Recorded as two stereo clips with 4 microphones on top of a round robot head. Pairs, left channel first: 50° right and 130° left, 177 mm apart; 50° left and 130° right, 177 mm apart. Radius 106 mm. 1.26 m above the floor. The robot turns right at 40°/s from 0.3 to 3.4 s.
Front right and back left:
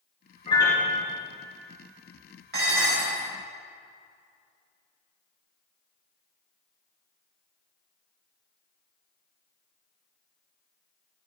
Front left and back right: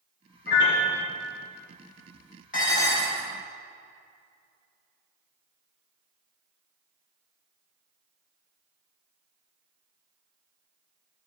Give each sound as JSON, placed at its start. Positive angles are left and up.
{"t": 0.5, "sound": "a piano", "azimuth_deg": 15, "distance_m": 3.0}
{"t": 2.5, "sound": "dishes clattering", "azimuth_deg": 95, "distance_m": 3.5}